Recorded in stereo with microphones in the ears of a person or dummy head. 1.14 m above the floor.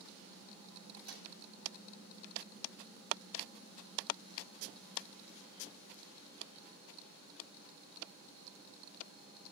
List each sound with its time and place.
1.0 s a microwave: 85° right, 5.5 m